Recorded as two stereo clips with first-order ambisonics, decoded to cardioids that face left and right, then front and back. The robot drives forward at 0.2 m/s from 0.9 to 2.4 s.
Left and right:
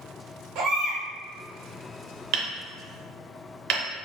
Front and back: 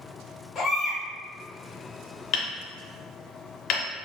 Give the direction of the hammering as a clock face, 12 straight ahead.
2 o'clock.